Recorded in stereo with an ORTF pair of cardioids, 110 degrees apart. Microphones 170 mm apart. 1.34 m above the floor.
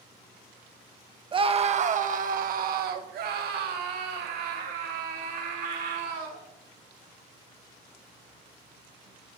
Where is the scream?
30° right, 0.8 m; by 6.4 s 80° right, 3.5 m.